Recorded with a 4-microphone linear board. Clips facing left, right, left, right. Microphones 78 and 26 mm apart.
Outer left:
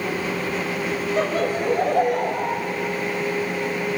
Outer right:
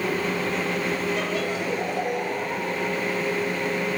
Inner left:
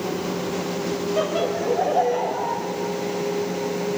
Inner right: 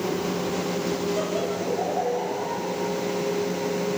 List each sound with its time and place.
1.2 s laughter: 35° left (ahead or behind), 1.7 m; by 2.7 s 55° left (ahead or behind), 2.5 m